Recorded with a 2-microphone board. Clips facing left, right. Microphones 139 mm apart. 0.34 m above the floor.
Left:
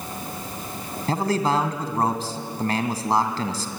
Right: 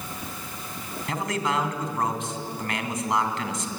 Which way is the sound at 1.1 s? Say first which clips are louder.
Left 5 dB; 35° left (ahead or behind).